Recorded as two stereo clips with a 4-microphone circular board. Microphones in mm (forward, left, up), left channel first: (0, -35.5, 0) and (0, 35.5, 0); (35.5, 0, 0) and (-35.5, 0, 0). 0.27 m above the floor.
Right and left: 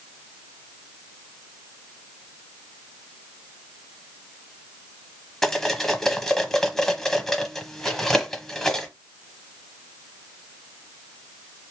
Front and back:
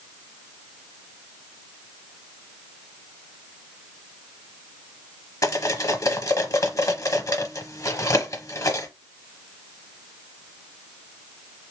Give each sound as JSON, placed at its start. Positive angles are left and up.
{"t": 5.4, "sound": "cutlery clinking", "azimuth_deg": -5, "distance_m": 0.8}